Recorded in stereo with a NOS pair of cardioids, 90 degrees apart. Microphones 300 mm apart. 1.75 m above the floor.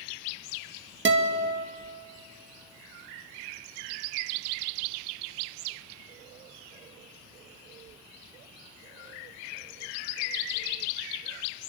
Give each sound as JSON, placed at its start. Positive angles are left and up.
{"t": 1.1, "sound": "a guitar", "azimuth_deg": -40, "distance_m": 2.5}